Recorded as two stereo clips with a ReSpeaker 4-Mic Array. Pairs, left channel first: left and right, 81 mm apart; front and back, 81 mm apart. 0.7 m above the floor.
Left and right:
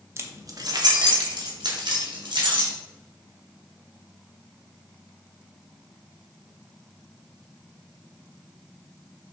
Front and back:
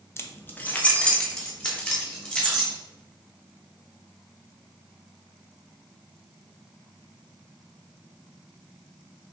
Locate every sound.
0.2 s keys jangling: 50° right, 0.7 m; by 2.7 s 85° right, 2.5 m